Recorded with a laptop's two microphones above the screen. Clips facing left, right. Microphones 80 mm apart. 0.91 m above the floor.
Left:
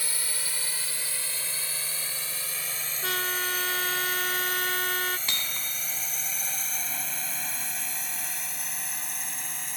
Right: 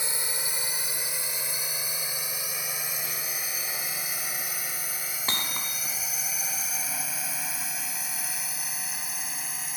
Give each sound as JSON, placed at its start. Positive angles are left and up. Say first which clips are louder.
{"t": 0.0, "sound": "a drone", "louder": "right 3 dB", "side_deg": -20}
{"t": 3.0, "sound": "a trumpet", "louder": "left 8 dB", "side_deg": 85}
{"t": 5.3, "sound": "hammering", "louder": "right 3 dB", "side_deg": -35}